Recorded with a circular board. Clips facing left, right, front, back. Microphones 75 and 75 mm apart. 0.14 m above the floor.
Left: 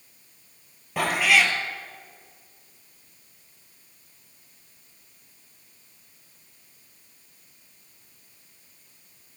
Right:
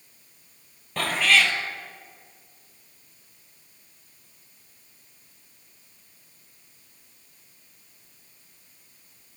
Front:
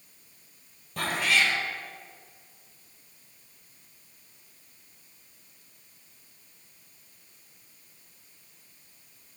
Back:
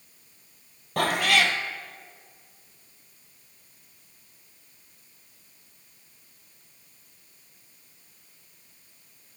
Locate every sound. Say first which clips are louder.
1.0 s a cat meowing: left 1 dB, back 3 dB; 170° left, 1.3 m